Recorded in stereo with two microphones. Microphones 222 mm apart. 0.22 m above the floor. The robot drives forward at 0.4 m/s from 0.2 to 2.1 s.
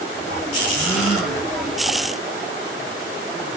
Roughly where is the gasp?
Centre.